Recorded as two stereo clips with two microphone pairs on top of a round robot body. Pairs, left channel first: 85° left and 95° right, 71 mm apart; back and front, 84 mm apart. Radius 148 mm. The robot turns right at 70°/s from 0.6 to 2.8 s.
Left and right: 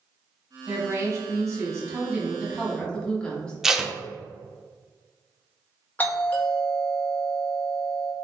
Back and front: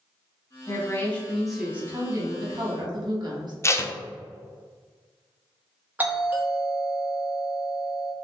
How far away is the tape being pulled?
About 0.6 m.